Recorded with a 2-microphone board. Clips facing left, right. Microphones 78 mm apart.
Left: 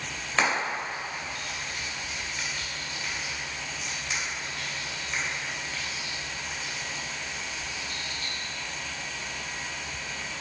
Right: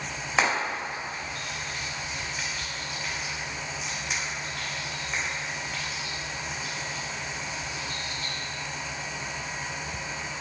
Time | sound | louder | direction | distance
0.4 | frying | right 1 dB | 10° right (ahead or behind) | 1.5 m